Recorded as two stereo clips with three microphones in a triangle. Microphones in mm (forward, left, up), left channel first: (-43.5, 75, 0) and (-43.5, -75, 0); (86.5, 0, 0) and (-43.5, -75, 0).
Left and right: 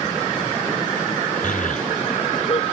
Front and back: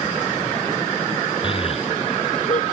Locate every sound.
1.4 s a child speaking: 80° left; by 2.6 s 50° left